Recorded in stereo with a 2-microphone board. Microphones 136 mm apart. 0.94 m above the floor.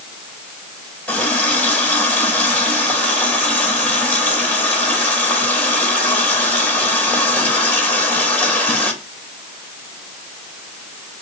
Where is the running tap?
10° left (ahead or behind), 3 m.